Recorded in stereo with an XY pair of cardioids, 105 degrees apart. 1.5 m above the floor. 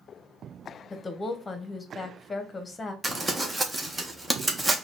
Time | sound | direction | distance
0.9 | a woman speaking | 30° left | 1.0 m
3.0 | crumpling | 20° right | 1.0 m